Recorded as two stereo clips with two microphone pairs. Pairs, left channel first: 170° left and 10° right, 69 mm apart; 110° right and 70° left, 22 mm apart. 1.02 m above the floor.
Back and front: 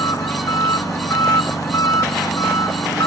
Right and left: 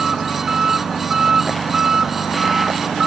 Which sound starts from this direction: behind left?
An engine running, at 0.0 s.